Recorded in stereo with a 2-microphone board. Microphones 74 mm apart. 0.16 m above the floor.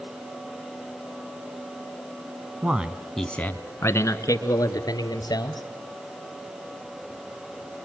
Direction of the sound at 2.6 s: 20° right (ahead or behind).